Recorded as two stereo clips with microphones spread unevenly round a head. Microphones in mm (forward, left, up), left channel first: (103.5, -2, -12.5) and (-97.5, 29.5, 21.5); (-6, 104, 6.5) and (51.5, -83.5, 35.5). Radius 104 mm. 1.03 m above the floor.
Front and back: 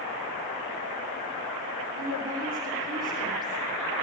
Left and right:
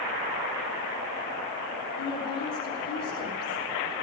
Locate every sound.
2.0 s a woman speaking: 120° left, 3.5 m